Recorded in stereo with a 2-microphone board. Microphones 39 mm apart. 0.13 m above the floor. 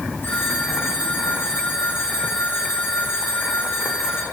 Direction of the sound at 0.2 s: 65° left (ahead or behind).